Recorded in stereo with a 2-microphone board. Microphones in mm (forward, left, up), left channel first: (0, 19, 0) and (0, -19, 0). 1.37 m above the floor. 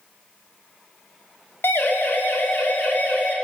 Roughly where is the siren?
Left.